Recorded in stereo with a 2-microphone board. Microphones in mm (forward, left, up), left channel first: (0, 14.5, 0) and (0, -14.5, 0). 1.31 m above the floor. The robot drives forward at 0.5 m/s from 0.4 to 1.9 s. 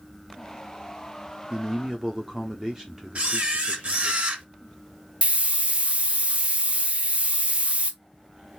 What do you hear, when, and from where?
1.5 s a man speaking: 20° right (ahead or behind), 0.5 m; by 4.2 s 15° right (ahead or behind), 0.7 m
3.1 s a camera shutter: 50° right (ahead or behind), 1.0 m
5.2 s a hiss: 45° right (ahead or behind), 0.7 m